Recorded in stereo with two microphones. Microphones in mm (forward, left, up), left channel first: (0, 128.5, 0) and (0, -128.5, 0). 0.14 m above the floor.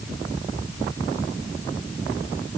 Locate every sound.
Only background noise.